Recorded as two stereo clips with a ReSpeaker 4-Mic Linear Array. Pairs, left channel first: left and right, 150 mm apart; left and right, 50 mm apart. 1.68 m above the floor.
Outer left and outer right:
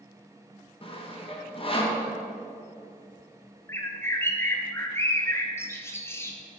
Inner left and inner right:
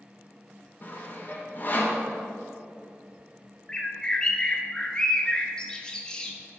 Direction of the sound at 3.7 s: 15° left (ahead or behind).